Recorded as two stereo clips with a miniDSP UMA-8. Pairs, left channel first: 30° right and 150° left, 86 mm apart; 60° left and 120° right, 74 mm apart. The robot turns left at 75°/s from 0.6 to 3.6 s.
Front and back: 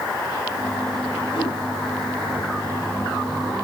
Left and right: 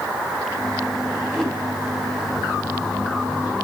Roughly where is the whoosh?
Ahead.